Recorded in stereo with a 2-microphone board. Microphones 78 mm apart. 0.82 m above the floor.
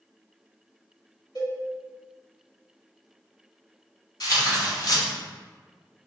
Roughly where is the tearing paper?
Left.